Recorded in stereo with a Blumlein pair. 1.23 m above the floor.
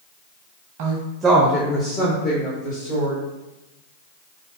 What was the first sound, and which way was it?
A woman speaking, 50° right.